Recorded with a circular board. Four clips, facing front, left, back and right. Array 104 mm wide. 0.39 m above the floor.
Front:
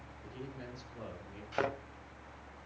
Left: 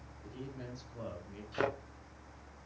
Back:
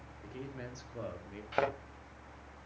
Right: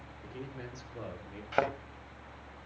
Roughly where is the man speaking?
Behind right.